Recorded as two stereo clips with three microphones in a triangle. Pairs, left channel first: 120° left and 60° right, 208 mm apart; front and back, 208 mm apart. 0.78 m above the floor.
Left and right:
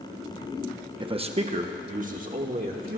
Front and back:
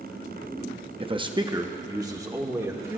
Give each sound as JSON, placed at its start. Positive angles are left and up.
{"t": 1.0, "sound": "a man speaking", "azimuth_deg": -120, "distance_m": 0.7}